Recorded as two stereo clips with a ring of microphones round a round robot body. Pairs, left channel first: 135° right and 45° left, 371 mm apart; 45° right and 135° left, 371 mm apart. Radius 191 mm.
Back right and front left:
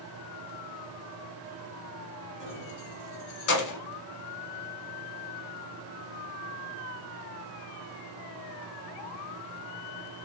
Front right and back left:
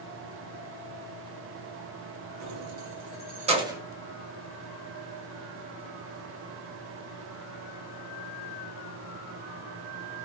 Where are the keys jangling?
170° left, 1.3 m; by 3.8 s 145° right, 1.1 m.